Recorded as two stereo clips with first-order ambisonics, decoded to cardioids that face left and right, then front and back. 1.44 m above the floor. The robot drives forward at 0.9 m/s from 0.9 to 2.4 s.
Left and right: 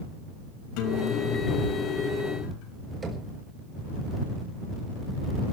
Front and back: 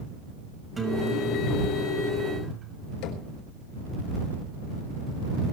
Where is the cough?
No cough in this recording.